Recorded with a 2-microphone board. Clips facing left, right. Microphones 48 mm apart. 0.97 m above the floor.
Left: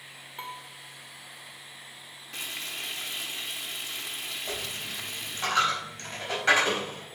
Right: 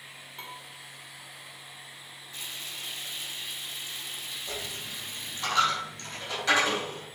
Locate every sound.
0.4 s dishes clattering: 15° left (ahead or behind), 1.7 m
2.3 s frying: 60° left (ahead or behind), 1.0 m
4.5 s a dropped coin: 30° left (ahead or behind), 4.5 m